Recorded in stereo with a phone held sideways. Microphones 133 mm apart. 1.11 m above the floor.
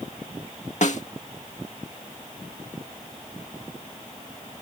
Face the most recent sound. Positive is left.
turn(degrees=65)  # may be behind; listen again after turning